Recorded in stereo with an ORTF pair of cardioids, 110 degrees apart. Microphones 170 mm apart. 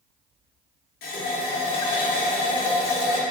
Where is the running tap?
65° left, 0.7 m.